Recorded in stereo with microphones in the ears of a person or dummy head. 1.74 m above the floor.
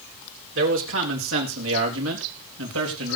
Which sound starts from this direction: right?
A man speaking, at 0.6 s.